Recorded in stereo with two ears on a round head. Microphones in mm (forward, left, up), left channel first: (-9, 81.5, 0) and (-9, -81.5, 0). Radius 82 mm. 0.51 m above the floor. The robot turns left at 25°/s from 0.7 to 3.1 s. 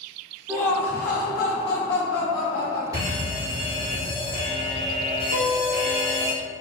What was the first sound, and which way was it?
Laughter, 10° left (ahead or behind).